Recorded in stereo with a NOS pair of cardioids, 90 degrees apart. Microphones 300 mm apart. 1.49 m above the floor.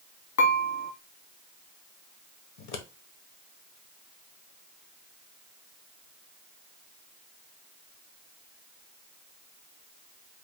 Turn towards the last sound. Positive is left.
turn(degrees=65)